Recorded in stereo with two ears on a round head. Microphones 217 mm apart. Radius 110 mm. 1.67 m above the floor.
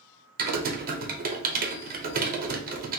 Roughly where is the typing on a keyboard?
Right.